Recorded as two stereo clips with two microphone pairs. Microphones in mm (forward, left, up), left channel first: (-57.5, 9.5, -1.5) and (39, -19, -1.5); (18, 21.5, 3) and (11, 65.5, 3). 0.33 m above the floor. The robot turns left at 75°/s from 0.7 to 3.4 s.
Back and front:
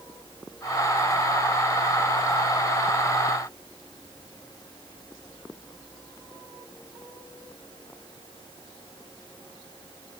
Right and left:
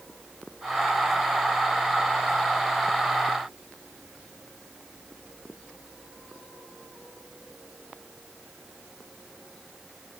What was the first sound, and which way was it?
Only background noise.